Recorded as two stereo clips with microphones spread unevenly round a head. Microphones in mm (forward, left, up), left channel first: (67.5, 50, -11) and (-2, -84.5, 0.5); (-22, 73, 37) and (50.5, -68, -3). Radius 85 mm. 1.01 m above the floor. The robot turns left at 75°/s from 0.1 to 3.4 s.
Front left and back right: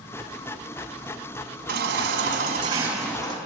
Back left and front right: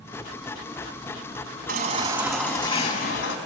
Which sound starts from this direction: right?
A baby crying, at 1.7 s.